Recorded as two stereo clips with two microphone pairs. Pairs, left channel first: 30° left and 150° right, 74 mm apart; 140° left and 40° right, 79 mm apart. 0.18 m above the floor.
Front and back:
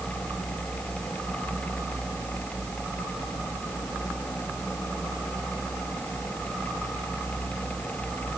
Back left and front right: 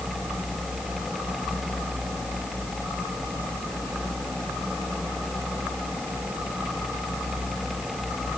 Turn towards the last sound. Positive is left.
No sound to turn to.